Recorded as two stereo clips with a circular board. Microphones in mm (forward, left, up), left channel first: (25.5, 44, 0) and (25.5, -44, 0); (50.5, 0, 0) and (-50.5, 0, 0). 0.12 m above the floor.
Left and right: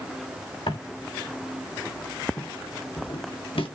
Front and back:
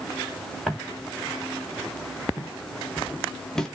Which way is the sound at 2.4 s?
50° left.